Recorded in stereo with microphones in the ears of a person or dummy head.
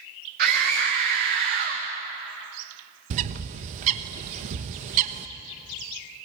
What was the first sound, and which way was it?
A scream, 45° right (ahead or behind).